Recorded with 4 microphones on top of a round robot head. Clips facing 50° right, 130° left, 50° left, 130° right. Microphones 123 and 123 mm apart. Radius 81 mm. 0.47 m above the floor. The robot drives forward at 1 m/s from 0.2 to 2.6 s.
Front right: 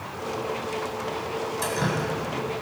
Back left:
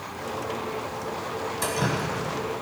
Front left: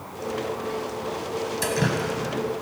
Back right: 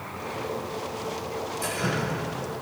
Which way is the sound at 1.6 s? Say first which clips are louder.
Back left 1 dB, front left 4 dB; 40° left.